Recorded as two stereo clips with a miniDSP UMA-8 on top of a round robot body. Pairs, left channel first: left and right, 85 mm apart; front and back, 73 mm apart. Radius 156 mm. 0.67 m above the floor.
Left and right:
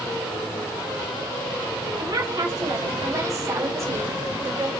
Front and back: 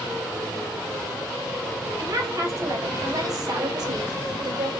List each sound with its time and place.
2.0 s a woman speaking: 130° right, 4 m; by 4.7 s 155° right, 3 m